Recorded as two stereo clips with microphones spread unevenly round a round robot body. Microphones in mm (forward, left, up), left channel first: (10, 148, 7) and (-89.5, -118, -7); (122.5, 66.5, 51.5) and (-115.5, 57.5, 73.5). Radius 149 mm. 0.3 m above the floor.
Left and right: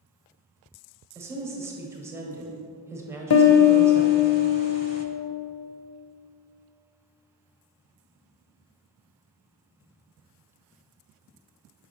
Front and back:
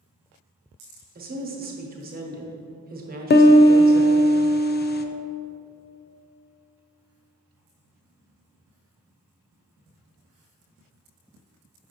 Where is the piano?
35° left, 0.5 m.